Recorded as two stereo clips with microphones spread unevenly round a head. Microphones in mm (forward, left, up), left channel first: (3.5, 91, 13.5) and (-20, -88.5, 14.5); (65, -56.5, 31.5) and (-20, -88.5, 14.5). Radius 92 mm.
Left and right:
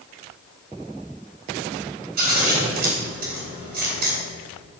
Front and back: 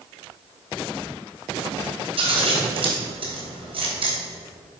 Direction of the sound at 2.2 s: 135° right.